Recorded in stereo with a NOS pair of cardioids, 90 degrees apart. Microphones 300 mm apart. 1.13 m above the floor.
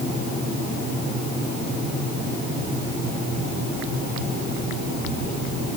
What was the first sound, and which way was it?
Only background noise.